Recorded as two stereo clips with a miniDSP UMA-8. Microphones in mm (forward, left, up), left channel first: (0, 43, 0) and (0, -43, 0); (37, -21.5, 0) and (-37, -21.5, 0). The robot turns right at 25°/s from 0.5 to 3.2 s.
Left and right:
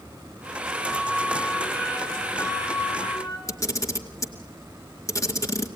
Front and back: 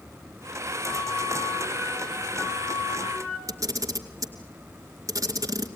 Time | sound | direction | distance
0.8 | a flute | 5° left | 6 m
3.5 | a camera shutter | 140° left | 2 m